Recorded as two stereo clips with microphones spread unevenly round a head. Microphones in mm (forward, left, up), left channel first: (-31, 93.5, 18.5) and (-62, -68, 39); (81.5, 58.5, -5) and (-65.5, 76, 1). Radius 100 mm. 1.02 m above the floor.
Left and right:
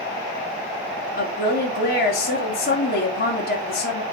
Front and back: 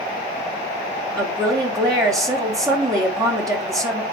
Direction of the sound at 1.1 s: 105° left.